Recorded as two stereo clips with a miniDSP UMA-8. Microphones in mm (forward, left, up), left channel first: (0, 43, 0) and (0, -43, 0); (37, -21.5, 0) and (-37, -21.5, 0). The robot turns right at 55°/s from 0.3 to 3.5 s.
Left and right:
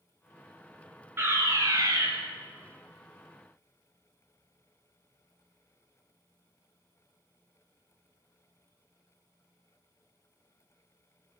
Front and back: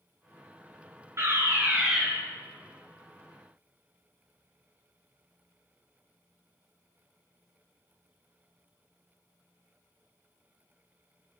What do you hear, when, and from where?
1.2 s a fire alarm: 145° right, 3 m; by 2.1 s 95° right, 3 m